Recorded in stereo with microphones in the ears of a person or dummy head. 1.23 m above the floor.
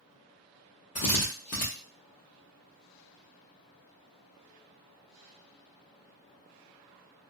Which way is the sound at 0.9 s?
30° left (ahead or behind).